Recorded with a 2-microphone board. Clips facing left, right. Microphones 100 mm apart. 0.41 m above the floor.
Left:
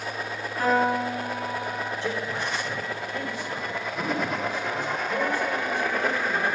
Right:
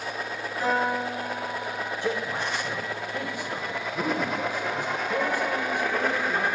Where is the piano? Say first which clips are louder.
Left 3 dB; 55° left (ahead or behind), 3 m.